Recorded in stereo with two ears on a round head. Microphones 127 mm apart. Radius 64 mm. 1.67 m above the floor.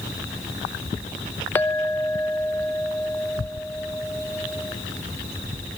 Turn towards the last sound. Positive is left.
turn(degrees=15)  # may be behind; listen again after turning